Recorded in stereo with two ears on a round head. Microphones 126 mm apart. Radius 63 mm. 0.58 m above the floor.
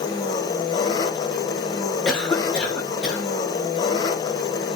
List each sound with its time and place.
0.0 s an engine running: 30° left (ahead or behind), 0.7 m
2.0 s a cough: 5° left (ahead or behind), 1.8 m